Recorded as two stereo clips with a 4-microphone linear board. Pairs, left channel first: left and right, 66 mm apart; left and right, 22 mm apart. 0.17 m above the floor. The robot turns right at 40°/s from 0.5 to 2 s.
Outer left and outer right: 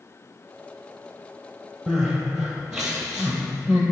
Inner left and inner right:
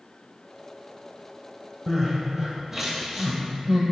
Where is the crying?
Centre (ahead or behind), 1.3 m; by 3.8 s 5° right (ahead or behind), 1.3 m.